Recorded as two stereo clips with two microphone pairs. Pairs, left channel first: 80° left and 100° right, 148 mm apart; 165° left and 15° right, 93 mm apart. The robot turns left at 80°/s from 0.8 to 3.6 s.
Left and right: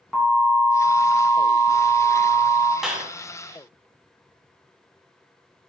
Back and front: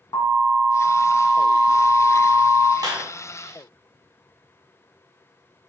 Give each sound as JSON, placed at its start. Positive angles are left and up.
{"t": 0.1, "sound": "an alarm", "azimuth_deg": 170, "distance_m": 3.0}
{"t": 2.8, "sound": "a clap", "azimuth_deg": -15, "distance_m": 1.7}